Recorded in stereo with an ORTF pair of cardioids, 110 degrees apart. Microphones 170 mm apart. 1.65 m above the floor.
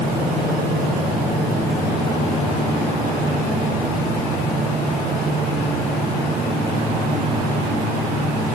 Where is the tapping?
I don't hear tapping.